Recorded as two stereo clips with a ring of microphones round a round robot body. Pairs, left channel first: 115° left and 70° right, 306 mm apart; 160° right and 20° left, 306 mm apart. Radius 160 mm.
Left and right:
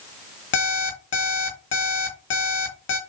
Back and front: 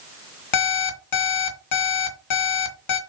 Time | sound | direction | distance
0.5 | an alarm clock | 165° left | 1.7 m